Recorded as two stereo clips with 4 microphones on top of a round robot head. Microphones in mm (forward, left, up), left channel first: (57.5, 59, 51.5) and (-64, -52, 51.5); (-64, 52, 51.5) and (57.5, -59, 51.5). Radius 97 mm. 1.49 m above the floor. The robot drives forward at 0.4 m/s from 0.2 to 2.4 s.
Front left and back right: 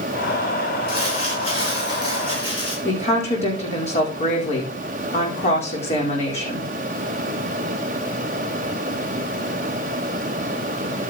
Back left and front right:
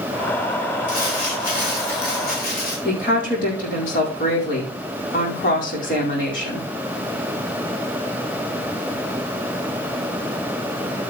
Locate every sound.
0.9 s crumpling: 100° left, 7 m; by 2.8 s 105° left, 7 m
2.9 s a woman speaking: 100° left, 5 m